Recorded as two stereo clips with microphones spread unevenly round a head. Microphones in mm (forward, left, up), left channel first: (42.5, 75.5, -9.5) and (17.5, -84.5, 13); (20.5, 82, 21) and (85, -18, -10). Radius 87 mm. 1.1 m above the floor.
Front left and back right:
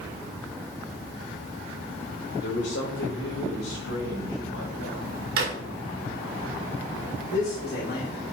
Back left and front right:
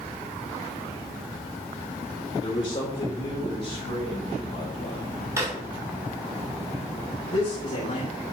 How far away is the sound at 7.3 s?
About 3.5 m.